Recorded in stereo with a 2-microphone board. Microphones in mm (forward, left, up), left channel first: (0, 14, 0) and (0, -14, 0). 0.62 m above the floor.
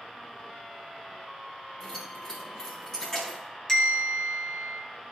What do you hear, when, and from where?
1.8 s keys jangling: 25° left (ahead or behind), 3.5 m
3.7 s a bell: 20° left (ahead or behind), 2.5 m